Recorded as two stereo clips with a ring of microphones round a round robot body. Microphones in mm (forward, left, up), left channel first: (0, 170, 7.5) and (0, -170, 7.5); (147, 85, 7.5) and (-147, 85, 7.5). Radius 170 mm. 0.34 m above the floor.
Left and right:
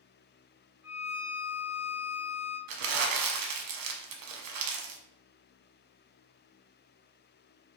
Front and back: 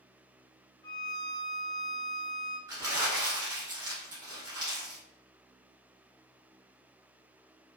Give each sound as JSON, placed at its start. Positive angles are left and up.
{"t": 0.8, "sound": "a violin", "azimuth_deg": 25, "distance_m": 1.7}
{"t": 2.7, "sound": "crumpling", "azimuth_deg": -100, "distance_m": 0.6}